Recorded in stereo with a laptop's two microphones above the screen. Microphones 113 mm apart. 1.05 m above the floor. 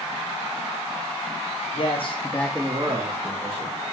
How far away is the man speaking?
About 1.2 m.